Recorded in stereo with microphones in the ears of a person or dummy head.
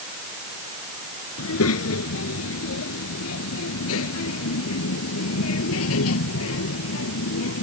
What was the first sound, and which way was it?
A child speaking, 80° left.